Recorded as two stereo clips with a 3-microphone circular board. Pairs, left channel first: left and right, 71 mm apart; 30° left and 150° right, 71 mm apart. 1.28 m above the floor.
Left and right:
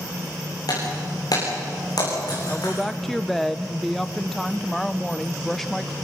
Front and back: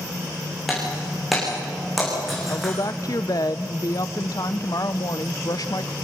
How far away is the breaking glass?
About 9 m.